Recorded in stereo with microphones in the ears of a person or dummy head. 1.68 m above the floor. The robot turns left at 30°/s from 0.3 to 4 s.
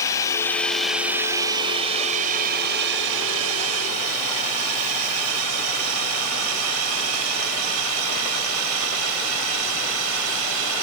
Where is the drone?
15° left (ahead or behind); by 10.8 s 70° right (ahead or behind).